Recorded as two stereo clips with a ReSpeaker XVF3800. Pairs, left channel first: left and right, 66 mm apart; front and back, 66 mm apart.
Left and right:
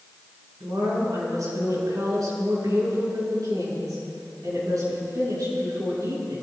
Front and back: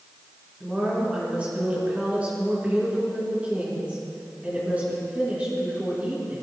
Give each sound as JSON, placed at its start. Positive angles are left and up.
{"t": 0.6, "sound": "a woman speaking", "azimuth_deg": -110, "distance_m": 5.0}